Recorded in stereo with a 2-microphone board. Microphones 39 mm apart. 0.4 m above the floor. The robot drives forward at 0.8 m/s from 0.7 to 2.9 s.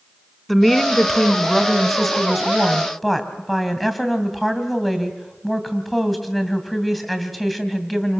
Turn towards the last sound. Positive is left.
turn(degrees=0)  # may be behind; listen again after turning